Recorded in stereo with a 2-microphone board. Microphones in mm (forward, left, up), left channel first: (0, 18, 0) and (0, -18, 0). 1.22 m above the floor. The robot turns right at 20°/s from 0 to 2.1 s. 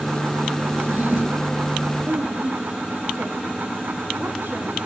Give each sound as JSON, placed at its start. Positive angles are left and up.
{"t": 0.7, "sound": "a drawer", "side_deg": -50, "distance_m": 6.0}
{"t": 2.0, "sound": "a woman speaking", "side_deg": -85, "distance_m": 3.5}